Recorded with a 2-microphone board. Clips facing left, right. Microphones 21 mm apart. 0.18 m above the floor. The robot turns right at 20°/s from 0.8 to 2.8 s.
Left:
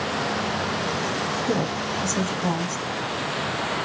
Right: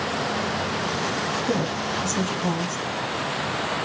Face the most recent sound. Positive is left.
turn(degrees=15)  # may be behind; listen again after turning